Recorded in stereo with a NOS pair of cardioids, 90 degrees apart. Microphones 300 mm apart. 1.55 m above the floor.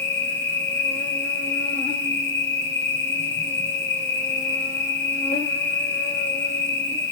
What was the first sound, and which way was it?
An insect, 35° left.